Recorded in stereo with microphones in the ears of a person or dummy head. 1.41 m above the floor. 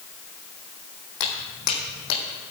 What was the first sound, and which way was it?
Footsteps, 55° left (ahead or behind).